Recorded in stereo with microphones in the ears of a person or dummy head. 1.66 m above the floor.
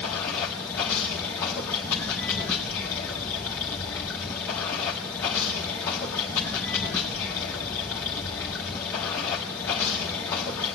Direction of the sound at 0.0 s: 10° left (ahead or behind).